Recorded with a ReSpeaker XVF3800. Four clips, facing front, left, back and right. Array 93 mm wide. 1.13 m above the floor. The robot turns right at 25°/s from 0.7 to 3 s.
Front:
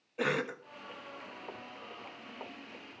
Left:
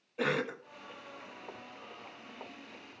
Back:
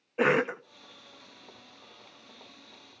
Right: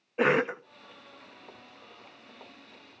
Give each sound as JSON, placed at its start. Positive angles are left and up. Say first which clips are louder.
{"t": 0.2, "sound": "a cough", "louder": "right 8 dB, back 8 dB", "azimuth_deg": -135, "distance_m": 0.6}